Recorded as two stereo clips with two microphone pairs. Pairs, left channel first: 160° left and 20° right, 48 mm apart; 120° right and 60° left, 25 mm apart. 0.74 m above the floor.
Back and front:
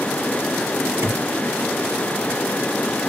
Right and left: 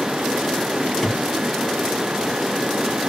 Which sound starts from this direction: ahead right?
A thud, at 1.0 s.